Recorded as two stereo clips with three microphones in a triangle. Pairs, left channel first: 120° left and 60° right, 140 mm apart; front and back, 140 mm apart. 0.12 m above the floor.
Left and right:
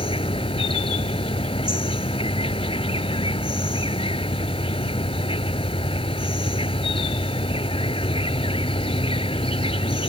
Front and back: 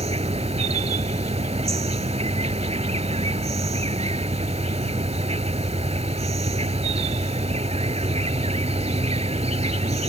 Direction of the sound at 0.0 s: 155° left.